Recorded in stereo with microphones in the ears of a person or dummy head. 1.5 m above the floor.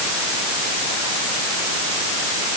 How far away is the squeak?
No squeak in this recording.